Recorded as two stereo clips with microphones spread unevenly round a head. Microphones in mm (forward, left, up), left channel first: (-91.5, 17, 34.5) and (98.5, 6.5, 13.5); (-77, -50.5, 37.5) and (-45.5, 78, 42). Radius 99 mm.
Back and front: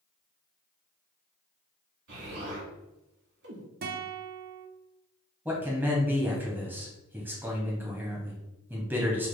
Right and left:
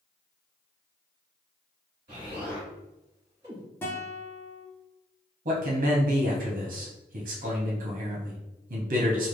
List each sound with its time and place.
2.1 s an explosion: 15° left, 1.2 m
3.8 s a guitar: 30° right, 0.5 m
5.5 s a man speaking: 80° left, 0.6 m